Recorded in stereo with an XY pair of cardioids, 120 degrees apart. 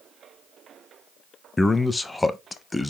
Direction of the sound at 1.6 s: 15° left.